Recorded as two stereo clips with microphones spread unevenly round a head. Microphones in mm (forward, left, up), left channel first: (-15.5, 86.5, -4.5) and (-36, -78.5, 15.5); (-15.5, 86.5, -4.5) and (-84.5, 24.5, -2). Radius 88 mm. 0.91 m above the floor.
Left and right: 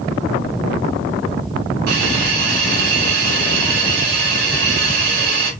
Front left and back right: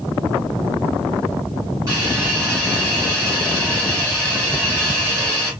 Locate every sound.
1.9 s a hiss: 70° right, 1.4 m